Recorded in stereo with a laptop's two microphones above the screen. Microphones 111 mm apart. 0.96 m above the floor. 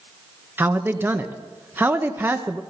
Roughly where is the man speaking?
Centre.